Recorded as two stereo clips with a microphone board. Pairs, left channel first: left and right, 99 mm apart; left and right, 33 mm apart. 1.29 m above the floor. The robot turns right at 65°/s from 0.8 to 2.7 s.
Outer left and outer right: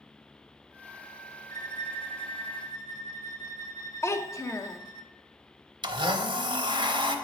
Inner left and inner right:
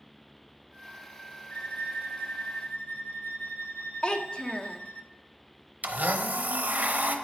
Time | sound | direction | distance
1.5 | a violin | 45° left | 0.7 m
4.0 | a child speaking | 30° left (ahead or behind) | 0.5 m
5.8 | a blender | 55° right (ahead or behind) | 0.7 m